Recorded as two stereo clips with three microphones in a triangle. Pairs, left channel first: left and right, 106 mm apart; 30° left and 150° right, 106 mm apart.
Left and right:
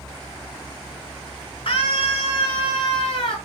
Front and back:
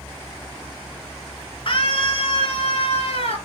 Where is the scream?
65° left, 4 m; by 3.4 s 55° left, 6 m.